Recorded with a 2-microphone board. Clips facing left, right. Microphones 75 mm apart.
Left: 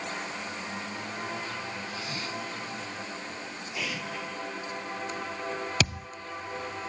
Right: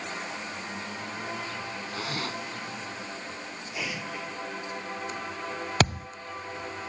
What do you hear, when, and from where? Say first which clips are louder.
1.9 s a zipper: right 2 dB; 60° right (ahead or behind)
3.8 s an explosion: even; 10° right (ahead or behind)
5.8 s a thud: right 8 dB; 40° right (ahead or behind)